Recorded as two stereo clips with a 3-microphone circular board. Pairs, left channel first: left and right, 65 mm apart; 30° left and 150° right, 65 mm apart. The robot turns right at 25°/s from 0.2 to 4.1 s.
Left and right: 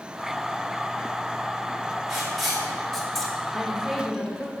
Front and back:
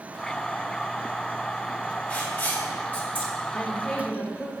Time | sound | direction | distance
2.1 | writing | 15° right | 1.4 m
3.5 | a woman speaking | 10° right | 0.9 m